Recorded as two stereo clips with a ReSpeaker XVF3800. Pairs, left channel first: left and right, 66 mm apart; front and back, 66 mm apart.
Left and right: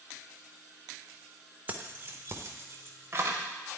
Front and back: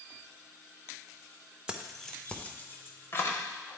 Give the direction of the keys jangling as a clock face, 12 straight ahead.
4 o'clock.